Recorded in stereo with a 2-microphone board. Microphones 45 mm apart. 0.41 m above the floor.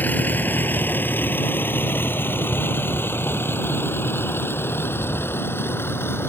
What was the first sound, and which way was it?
A vehicle, 45° left (ahead or behind).